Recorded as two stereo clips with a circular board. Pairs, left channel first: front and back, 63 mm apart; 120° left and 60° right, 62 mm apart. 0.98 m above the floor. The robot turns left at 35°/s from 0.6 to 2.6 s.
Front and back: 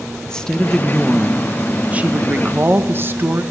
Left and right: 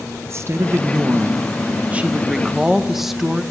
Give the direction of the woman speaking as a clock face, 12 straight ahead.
2 o'clock.